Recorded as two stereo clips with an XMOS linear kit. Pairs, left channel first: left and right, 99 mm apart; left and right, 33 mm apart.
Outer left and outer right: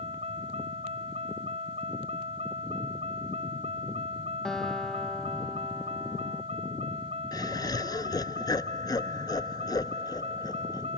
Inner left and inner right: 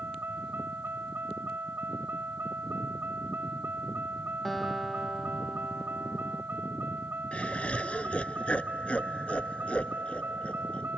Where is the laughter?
40° left (ahead or behind).